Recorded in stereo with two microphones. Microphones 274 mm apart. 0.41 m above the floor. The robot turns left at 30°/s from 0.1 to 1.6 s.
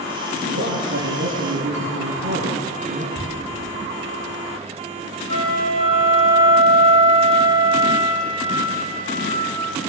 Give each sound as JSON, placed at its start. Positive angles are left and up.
{"t": 0.4, "sound": "a man speaking", "azimuth_deg": -90, "distance_m": 5.0}
{"t": 3.1, "sound": "ticking", "side_deg": -25, "distance_m": 5.5}
{"t": 5.3, "sound": "a flute", "side_deg": 20, "distance_m": 3.5}